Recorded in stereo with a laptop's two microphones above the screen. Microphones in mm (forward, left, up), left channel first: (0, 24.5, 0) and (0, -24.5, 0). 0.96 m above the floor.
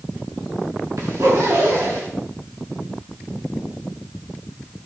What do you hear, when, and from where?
1.0 s a zipper: 90° right, 7 m